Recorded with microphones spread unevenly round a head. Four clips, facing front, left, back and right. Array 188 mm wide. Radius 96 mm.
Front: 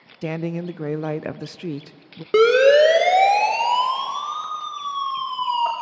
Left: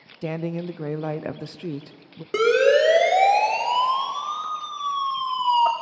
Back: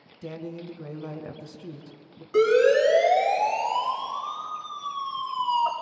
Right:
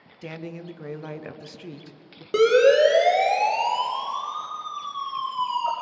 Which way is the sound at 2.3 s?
Straight ahead.